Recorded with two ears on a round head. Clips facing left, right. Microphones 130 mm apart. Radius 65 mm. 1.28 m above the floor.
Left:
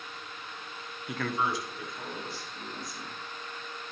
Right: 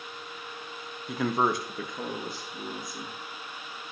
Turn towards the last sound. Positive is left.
turn(degrees=-80)